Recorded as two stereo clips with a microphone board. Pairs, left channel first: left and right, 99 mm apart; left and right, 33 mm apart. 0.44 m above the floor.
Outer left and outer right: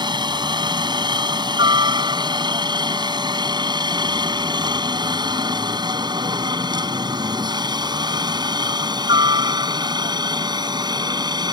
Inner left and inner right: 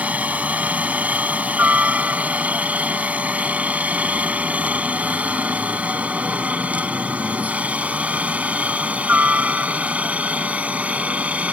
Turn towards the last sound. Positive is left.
turn(degrees=-45)  # may be behind; listen again after turning